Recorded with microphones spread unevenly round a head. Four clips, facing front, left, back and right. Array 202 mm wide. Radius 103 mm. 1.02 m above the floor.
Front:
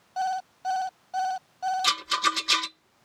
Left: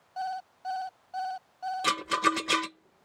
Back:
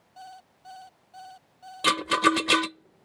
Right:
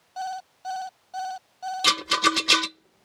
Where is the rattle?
175° right.